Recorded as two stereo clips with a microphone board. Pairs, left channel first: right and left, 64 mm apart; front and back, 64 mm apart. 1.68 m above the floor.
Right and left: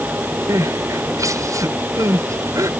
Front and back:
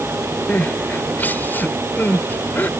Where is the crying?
60° left.